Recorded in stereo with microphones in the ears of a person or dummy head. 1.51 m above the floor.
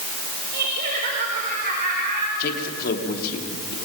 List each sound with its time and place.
0.5 s laughter: 50° right (ahead or behind), 4.5 m; by 2.3 s 45° right (ahead or behind), 5.5 m
2.4 s a man speaking: 50° left (ahead or behind), 3.5 m